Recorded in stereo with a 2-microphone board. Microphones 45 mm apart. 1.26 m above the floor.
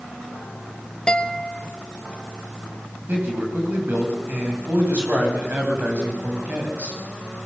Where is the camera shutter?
I don't hear a camera shutter.